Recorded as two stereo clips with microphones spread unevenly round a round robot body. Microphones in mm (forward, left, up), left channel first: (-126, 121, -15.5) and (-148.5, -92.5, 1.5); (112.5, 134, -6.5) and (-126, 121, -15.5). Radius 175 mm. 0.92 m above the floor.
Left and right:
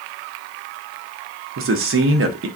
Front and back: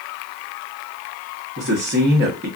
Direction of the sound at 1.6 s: 120° right.